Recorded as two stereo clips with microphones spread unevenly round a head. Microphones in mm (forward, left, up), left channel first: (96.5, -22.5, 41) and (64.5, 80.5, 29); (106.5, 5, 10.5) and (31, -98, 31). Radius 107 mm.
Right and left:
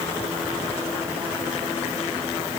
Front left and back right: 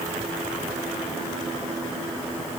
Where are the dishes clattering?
No dishes clattering in this recording.